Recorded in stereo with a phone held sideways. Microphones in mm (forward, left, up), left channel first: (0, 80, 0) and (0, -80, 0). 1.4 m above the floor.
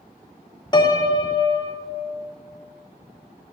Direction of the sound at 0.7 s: 30° left (ahead or behind).